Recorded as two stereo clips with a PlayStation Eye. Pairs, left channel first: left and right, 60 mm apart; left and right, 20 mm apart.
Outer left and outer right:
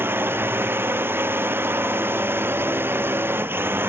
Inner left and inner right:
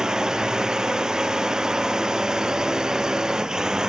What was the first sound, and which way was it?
A drone, 40° right (ahead or behind).